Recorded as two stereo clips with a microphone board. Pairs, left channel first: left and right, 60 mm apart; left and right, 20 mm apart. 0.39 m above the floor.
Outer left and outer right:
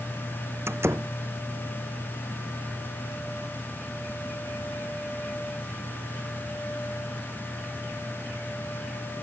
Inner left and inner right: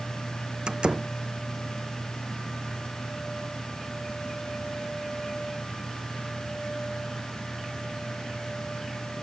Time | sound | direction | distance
0.7 | a door slam | 50° right (ahead or behind) | ?